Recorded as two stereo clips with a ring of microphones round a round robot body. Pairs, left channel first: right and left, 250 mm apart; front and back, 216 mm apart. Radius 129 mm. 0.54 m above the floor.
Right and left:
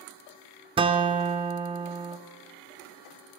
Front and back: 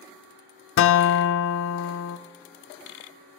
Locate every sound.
0.8 s a guitar: 20° left, 0.7 m